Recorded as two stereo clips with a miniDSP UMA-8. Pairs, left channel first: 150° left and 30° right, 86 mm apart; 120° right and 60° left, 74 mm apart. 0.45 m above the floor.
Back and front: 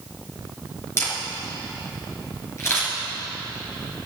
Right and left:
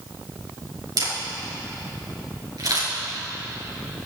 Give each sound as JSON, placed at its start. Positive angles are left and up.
{"t": 1.0, "sound": "a camera shutter", "azimuth_deg": 95, "distance_m": 5.5}